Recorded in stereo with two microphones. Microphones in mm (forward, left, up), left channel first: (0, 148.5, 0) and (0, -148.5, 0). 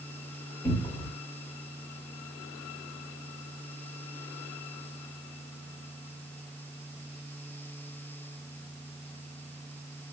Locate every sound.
0.6 s a cupboard door: 10° left (ahead or behind), 1.7 m